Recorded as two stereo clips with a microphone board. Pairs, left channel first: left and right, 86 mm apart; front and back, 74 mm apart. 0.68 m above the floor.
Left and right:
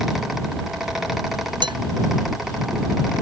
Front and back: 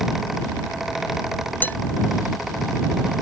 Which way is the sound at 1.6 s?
65° right.